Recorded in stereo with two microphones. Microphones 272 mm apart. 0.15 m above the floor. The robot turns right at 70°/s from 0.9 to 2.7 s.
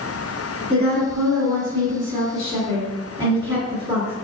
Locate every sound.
0.7 s a woman speaking: centre (ahead or behind), 1.7 m; by 4.1 s 15° right (ahead or behind), 1.7 m